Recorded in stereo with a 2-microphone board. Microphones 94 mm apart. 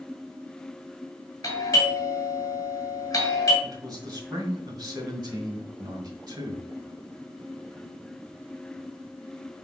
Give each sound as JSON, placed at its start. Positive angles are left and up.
{"t": 1.4, "sound": "a doorbell", "side_deg": 40, "distance_m": 2.0}
{"t": 3.6, "sound": "a man speaking", "side_deg": -45, "distance_m": 1.7}